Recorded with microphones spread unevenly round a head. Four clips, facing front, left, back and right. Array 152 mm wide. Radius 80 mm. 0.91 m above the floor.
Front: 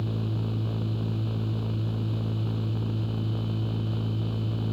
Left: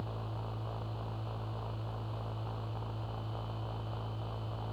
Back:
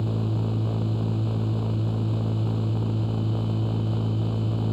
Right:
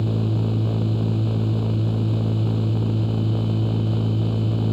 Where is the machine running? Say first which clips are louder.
Right 18 dB, back 3 dB; 95° right.